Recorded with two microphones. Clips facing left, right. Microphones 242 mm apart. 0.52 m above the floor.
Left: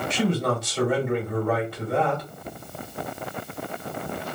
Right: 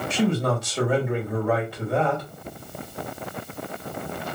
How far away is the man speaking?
About 1.3 m.